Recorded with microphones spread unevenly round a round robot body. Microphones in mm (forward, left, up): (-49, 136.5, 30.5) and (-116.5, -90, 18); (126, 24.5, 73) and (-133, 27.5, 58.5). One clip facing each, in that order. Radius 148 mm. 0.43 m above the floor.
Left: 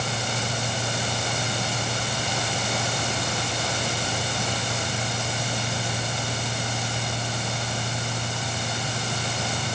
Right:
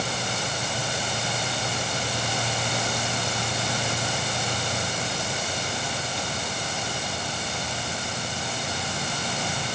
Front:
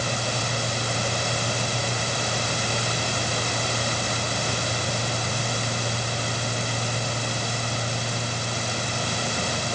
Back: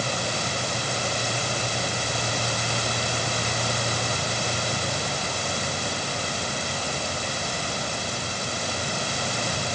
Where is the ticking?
I don't hear ticking.